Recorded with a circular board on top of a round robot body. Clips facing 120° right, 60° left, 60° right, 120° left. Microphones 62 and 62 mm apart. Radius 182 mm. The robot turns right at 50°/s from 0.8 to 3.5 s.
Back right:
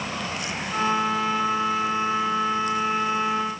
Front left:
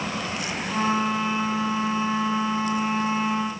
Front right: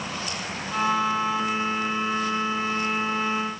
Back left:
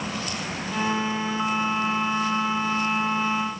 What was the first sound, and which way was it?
Only background noise.